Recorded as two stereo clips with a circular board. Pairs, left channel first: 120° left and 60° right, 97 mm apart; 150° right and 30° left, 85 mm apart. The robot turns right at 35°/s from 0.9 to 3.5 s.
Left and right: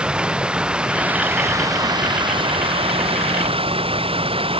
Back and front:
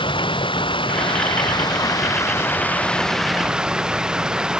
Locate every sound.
0.0 s running water: 140° right; by 4.6 s 50° right